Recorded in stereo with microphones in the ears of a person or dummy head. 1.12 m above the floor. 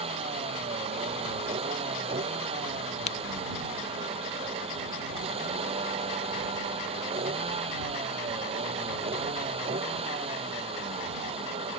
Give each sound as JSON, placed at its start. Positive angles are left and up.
{"t": 0.0, "sound": "a vehicle", "side_deg": -35}
{"t": 3.1, "sound": "a crack", "side_deg": 35}